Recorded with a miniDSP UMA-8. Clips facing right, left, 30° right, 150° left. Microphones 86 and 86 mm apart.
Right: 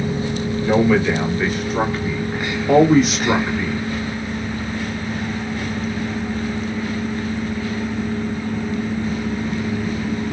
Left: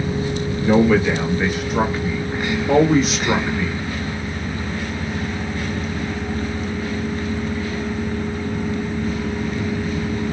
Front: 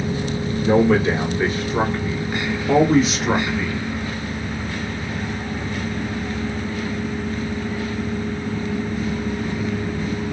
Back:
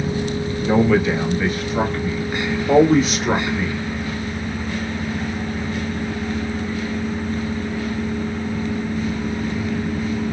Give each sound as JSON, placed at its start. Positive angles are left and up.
{"t": 0.6, "sound": "a man speaking", "azimuth_deg": 10, "distance_m": 1.6}